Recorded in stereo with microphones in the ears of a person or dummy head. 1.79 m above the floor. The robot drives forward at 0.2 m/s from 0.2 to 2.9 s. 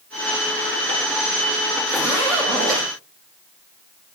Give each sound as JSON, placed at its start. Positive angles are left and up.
{"t": 1.9, "sound": "a zipper", "side_deg": 10, "distance_m": 7.0}